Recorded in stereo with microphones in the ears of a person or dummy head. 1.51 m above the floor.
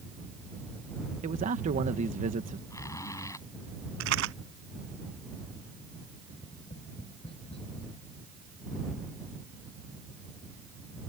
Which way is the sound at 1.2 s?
40° right (ahead or behind).